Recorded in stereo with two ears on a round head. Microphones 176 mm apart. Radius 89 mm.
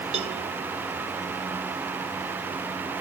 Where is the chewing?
No chewing in this recording.